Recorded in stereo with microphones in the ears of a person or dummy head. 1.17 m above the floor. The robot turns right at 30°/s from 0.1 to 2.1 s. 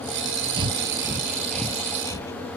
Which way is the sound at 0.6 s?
30° right (ahead or behind).